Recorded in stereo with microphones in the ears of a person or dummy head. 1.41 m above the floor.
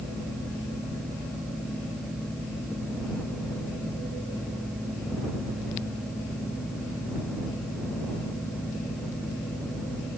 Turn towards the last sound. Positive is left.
No sound to turn to.